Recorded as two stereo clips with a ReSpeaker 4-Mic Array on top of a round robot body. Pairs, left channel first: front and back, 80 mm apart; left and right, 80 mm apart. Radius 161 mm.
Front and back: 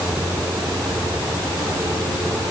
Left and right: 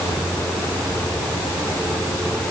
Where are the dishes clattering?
No dishes clattering in this recording.